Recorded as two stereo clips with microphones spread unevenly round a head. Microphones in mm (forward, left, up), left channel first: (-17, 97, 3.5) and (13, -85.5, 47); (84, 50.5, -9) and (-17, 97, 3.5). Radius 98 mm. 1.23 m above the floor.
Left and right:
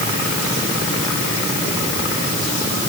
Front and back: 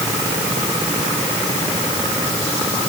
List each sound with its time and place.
Only background noise.